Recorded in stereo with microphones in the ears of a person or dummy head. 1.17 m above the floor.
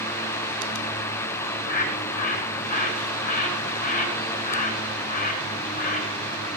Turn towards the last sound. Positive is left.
turn(degrees=40)  # may be behind; listen again after turning